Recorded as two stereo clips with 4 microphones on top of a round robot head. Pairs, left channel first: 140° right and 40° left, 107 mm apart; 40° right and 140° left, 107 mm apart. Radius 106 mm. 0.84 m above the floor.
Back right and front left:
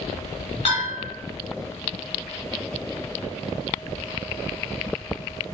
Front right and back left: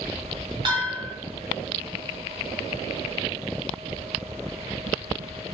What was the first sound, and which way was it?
A bell, 170° right.